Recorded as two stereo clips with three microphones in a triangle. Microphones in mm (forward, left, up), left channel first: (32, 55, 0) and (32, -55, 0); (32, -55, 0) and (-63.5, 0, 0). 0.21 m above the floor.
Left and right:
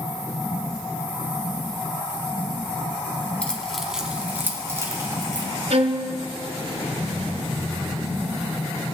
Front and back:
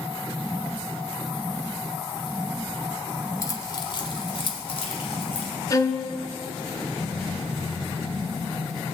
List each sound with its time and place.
3.4 s keys jangling: 15° left, 0.9 m; by 5.5 s 40° right, 1.5 m
5.7 s a violin: 85° right, 0.7 m